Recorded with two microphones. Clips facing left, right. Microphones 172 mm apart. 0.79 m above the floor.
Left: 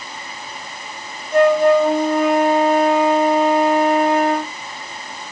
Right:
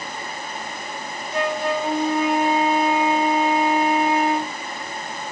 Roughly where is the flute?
Left.